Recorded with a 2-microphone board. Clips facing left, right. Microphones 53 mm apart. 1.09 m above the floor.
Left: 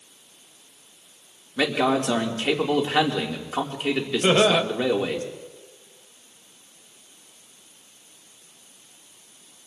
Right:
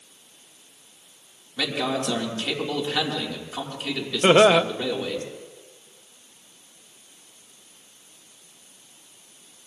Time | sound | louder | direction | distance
1.6 | a man speaking | left 5 dB | 30° left (ahead or behind) | 1.8 m
4.2 | laughter | right 4 dB | 25° right (ahead or behind) | 0.6 m